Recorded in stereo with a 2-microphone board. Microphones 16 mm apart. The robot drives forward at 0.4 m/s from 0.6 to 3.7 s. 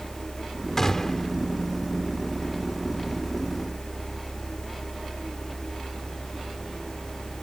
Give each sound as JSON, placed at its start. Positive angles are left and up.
{"t": 0.8, "sound": "a gunshot", "side_deg": 25}